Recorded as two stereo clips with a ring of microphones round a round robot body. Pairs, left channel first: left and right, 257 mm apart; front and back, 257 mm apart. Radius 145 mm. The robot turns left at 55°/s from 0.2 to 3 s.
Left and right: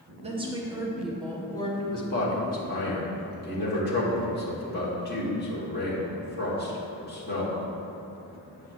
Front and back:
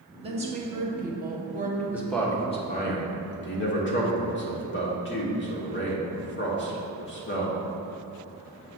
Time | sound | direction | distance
0.2 | a woman speaking | 130° right | 1.0 m
1.9 | a man speaking | 100° left | 1.4 m